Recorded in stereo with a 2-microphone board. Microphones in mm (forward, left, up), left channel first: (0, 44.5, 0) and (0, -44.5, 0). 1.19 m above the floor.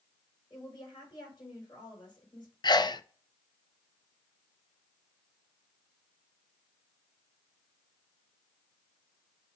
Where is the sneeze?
55° left (ahead or behind), 0.6 m.